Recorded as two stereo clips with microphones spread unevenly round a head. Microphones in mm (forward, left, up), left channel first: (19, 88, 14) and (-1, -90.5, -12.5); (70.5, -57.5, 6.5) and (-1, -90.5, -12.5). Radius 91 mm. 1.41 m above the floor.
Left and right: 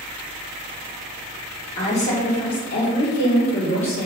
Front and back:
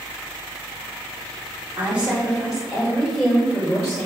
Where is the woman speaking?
145° left, 3 m; by 4.1 s 105° left, 4.5 m.